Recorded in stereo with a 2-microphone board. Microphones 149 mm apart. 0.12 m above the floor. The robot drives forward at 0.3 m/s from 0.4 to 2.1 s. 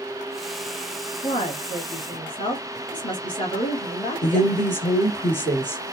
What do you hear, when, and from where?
1.2 s a woman speaking: 35° left (ahead or behind), 1.4 m
4.2 s a woman speaking: 15° left (ahead or behind), 2.0 m